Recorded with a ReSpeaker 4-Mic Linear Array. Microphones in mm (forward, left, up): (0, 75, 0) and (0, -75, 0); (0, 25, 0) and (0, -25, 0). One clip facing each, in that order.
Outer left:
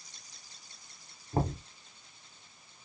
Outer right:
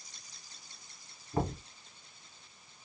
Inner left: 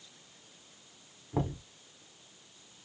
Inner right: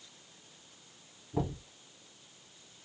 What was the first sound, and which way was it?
Knocking, 40° left (ahead or behind).